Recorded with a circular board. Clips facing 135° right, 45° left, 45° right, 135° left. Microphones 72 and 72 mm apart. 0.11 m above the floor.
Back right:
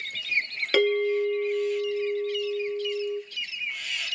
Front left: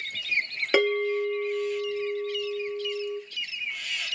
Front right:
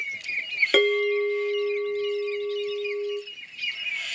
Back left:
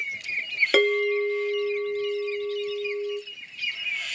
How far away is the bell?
About 1.1 m.